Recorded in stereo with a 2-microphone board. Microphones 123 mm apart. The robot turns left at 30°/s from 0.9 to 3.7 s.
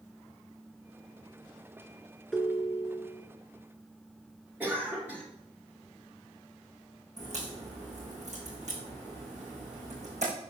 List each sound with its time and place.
2.3 s a ringtone: centre (ahead or behind), 0.6 m; by 3.2 s 10° right (ahead or behind), 0.6 m
4.6 s a cough: 15° right (ahead or behind), 1.4 m
7.2 s a crack: 65° right (ahead or behind), 3.5 m